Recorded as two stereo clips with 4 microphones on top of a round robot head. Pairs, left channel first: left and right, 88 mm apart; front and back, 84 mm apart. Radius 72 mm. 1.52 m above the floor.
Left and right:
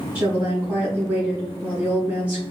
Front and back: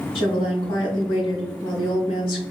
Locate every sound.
0.1 s a woman speaking: 15° right, 1.7 m